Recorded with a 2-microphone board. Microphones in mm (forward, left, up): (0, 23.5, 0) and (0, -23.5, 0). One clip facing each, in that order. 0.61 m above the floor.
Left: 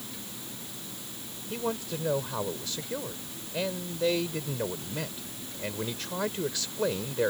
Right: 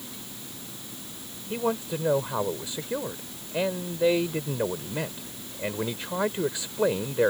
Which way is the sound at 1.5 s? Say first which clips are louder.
Right 5 dB; 25° right (ahead or behind).